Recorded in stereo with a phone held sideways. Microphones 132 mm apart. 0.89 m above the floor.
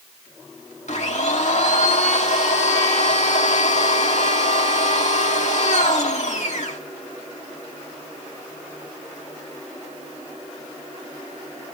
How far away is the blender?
About 2.5 m.